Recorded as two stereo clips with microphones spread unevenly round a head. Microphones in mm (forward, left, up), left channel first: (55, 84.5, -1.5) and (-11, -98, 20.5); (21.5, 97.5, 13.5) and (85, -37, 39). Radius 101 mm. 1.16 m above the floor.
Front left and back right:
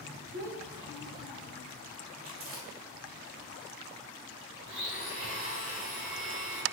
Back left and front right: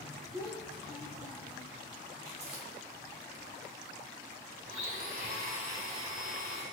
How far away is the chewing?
About 1.9 m.